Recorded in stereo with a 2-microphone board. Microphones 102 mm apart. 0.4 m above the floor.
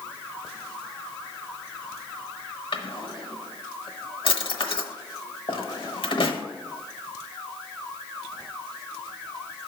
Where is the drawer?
65° left (ahead or behind), 0.8 m.